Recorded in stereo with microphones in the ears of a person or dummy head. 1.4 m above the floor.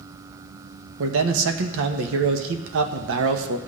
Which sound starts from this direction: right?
A man speaking, at 1.0 s.